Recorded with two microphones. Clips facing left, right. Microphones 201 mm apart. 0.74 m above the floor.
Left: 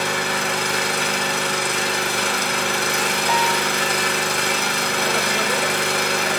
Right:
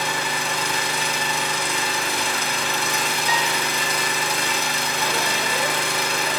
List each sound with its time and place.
0.0 s an engine running: 70° left (ahead or behind), 5 m
3.3 s a piano: 50° left (ahead or behind), 1.1 m